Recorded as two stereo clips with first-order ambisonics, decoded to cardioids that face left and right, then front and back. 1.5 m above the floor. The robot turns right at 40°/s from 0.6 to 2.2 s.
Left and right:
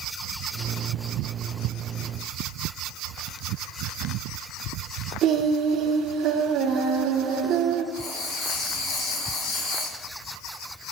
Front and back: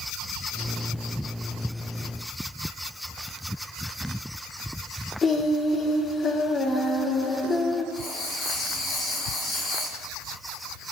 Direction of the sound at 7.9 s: 75° left.